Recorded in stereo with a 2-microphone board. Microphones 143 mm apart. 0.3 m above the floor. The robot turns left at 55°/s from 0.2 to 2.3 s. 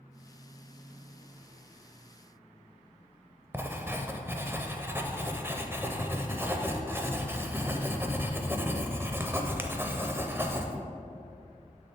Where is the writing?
15° right (ahead or behind), 0.5 m.